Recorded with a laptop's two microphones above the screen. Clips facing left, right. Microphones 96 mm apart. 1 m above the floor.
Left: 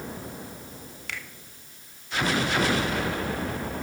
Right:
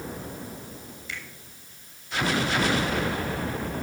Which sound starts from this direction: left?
A finger snap, at 1.1 s.